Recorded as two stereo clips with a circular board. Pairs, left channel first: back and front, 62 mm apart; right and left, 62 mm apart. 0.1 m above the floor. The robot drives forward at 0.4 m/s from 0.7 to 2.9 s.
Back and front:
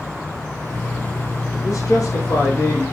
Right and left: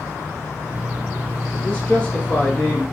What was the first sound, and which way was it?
A man speaking, 165° right.